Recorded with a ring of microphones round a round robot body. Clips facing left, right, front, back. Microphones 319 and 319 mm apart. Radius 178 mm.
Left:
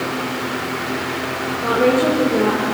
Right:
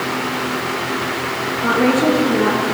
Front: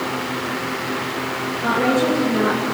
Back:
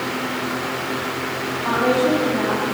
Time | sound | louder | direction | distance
1.6 | a woman speaking | right 1 dB, even | 35° right | 9.5 m